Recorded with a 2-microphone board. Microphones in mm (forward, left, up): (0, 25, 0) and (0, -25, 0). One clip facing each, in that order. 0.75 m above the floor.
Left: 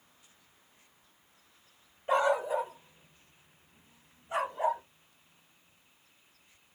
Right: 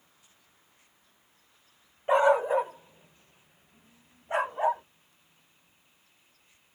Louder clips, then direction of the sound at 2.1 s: Right 5 dB; 25° right (ahead or behind).